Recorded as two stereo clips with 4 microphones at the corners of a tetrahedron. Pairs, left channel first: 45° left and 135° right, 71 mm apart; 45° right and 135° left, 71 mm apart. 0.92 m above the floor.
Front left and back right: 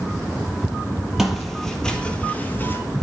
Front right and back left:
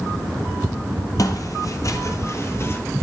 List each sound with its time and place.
1.2 s footsteps: 55° right, 1.4 m; by 2.8 s straight ahead, 1.2 m